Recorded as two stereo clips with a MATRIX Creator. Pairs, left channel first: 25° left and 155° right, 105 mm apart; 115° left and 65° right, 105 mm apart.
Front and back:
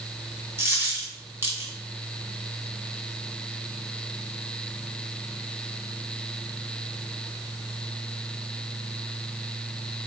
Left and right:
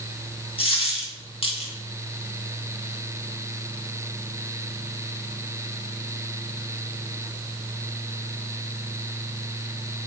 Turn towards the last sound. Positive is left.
turn(degrees=135)